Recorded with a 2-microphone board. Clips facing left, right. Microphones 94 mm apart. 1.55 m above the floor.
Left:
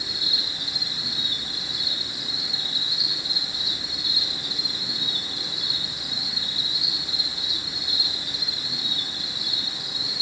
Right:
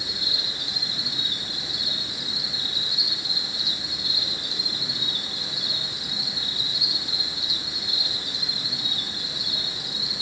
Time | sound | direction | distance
0.0 | an insect | 65° right (ahead or behind) | 3.5 m